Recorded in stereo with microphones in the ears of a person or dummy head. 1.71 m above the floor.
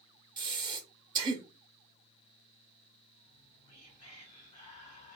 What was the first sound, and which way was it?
Breathing, 25° right (ahead or behind).